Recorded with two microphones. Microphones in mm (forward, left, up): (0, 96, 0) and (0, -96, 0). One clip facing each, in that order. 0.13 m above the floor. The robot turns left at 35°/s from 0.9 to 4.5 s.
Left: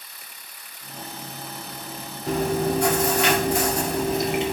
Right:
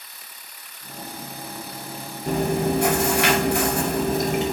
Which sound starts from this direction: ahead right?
Chewing, at 2.3 s.